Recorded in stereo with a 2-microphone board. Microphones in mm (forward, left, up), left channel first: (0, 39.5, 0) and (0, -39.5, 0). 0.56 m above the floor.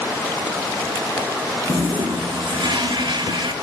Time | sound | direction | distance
1.6 | a toilet flushing | 85° right | 0.8 m